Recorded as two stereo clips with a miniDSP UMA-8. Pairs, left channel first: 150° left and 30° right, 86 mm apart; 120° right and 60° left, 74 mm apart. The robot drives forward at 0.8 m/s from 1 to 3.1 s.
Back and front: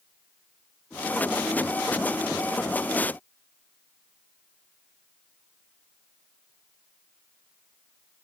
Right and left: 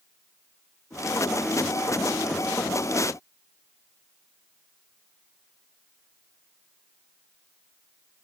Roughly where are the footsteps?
I don't hear footsteps.